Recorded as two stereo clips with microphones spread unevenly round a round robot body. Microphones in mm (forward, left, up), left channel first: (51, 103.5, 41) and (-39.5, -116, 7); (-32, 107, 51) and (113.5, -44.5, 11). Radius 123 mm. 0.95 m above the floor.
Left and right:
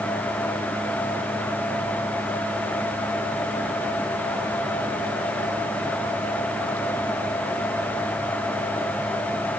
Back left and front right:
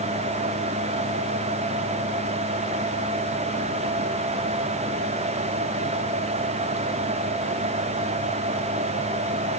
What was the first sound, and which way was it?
Only background noise.